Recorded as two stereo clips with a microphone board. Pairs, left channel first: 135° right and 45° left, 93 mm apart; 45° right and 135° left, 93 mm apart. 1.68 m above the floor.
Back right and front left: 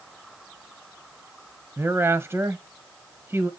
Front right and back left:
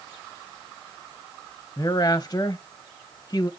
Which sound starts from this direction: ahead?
A woman speaking, at 1.8 s.